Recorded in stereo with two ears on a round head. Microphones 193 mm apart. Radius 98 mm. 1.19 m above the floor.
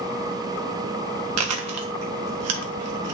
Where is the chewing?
75° right (ahead or behind), 1.4 m.